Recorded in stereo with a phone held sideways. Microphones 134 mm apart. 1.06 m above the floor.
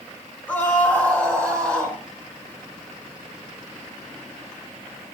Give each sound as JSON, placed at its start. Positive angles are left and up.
{"t": 0.5, "sound": "a scream", "side_deg": 15, "distance_m": 5.0}